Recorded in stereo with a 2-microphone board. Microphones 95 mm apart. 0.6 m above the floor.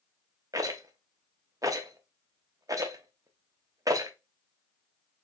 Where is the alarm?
No alarm in this recording.